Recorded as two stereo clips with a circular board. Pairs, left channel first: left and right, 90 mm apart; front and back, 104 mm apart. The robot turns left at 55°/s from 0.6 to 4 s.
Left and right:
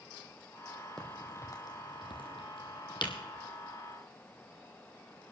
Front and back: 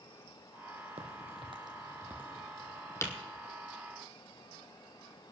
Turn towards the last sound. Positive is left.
turn(degrees=5)